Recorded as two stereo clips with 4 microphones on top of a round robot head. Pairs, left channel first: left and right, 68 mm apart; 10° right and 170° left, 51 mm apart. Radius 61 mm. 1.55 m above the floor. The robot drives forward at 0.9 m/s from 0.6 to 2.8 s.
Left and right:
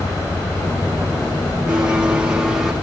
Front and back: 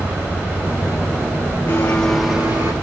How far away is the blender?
About 1.1 m.